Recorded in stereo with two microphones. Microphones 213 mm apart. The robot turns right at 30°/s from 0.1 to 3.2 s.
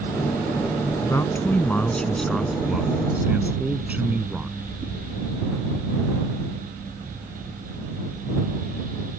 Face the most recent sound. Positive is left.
turn(degrees=-5)  # may be behind; listen again after turning